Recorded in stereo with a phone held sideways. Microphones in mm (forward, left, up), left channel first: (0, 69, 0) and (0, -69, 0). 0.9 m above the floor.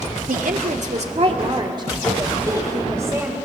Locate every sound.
0.3 s a woman speaking: 75° right (ahead or behind), 1.6 m; by 3.4 s 20° right (ahead or behind), 4.5 m